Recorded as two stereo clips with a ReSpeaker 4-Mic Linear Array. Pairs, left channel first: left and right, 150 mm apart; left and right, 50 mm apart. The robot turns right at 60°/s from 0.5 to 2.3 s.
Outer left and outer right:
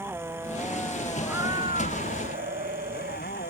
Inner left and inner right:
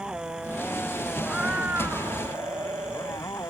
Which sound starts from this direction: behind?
A cat meowing, at 1.2 s.